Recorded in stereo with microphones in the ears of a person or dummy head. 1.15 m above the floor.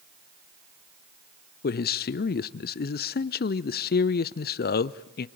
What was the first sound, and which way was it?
A man speaking, 35° left (ahead or behind).